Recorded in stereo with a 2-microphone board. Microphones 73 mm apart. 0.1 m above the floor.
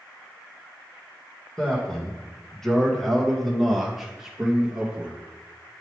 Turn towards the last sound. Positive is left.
turn(degrees=-20)  # may be behind; listen again after turning